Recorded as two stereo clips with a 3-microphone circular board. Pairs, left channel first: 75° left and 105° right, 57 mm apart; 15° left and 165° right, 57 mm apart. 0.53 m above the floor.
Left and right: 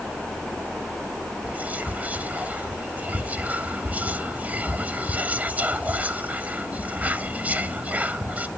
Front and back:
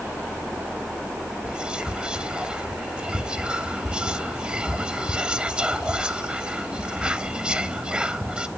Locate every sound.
1.4 s whispering: 110° right, 0.8 m